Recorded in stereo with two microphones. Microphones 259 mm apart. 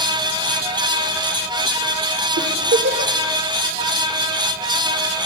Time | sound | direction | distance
2.4 | a giggle | 65° right (ahead or behind) | 0.9 m